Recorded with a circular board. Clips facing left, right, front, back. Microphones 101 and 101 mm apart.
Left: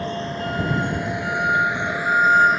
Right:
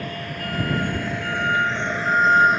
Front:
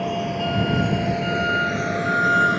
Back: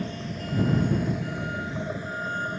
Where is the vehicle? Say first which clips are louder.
Left 4 dB, front 10 dB; 25° left; by 2.6 s straight ahead.